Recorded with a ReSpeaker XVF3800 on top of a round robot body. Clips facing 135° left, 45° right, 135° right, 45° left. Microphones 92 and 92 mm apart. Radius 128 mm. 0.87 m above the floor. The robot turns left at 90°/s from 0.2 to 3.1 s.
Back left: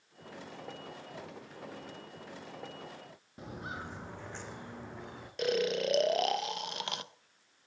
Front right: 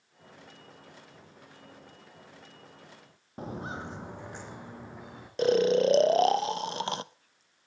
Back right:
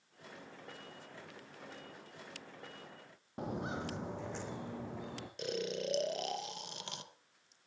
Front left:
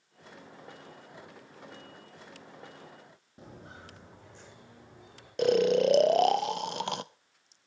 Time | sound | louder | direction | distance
3.4 | footsteps | front right 5 dB, back right 10 dB | 95° right | 1.4 m
5.4 | snoring | front right 8 dB, front left 16 dB | 15° left | 0.7 m